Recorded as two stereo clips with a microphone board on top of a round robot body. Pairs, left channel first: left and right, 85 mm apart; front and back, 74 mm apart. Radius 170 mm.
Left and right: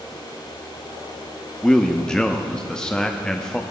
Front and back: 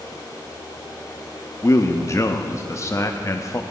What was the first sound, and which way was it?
A man speaking, 15° left.